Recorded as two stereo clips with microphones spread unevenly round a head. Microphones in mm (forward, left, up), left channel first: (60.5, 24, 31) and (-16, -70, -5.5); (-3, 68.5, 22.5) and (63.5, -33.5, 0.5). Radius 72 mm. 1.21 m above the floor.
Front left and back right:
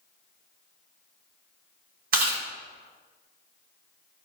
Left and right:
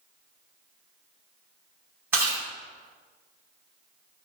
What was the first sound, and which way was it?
Chewing, 135° right.